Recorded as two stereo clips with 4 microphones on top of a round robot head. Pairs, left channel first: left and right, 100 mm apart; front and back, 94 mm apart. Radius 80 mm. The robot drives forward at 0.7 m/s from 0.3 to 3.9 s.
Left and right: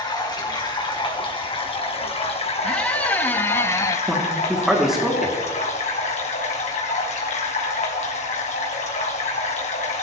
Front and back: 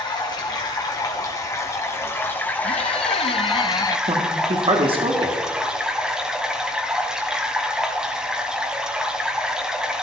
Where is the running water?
45° left, 3 m; by 10.0 s 95° left, 2 m.